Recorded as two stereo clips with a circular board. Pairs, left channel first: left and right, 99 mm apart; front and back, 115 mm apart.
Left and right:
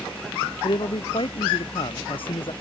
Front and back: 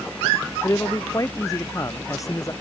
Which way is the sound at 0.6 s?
60° left.